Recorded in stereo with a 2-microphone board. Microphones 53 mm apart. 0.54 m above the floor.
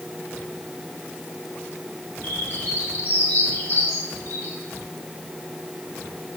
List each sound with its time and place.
2.2 s a bird: 35° left (ahead or behind), 3 m